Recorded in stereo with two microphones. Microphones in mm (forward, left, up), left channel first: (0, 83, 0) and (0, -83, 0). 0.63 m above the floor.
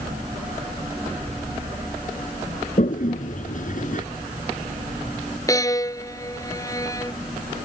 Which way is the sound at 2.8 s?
55° left (ahead or behind).